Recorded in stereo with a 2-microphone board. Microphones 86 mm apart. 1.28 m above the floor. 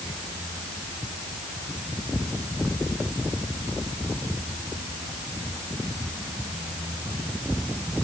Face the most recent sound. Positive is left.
No sound to turn to.